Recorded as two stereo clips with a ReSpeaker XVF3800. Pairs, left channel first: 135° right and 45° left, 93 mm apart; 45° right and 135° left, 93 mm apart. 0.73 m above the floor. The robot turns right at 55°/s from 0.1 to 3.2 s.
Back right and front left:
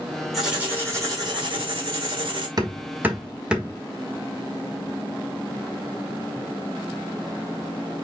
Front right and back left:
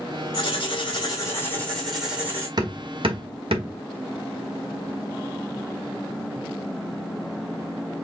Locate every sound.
0.3 s writing: 40° right, 2.5 m; by 2.5 s 75° left, 2.5 m
2.6 s hammering: 90° left, 1.3 m; by 3.8 s 125° left, 1.3 m